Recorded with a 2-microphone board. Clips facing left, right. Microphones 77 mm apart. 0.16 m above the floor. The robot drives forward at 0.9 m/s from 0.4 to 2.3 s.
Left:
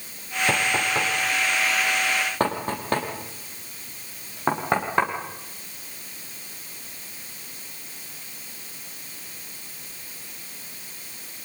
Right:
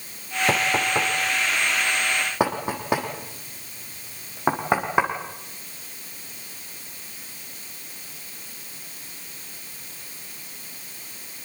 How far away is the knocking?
About 2.5 m.